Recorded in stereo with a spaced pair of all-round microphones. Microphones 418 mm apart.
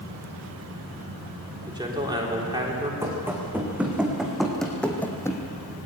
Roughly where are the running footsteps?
Centre.